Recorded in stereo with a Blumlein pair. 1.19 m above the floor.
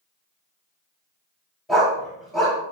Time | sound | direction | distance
1.7 | a dog barking | 10° left | 1.7 m